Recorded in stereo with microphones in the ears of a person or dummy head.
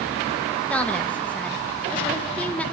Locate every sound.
0.7 s a woman speaking: 5° left (ahead or behind), 1.8 m